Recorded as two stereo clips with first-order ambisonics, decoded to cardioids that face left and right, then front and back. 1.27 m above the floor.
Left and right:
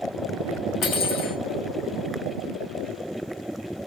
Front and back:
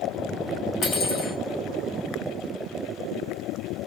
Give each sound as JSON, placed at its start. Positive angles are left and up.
{"t": 0.8, "sound": "cutlery clinking", "azimuth_deg": 45, "distance_m": 1.3}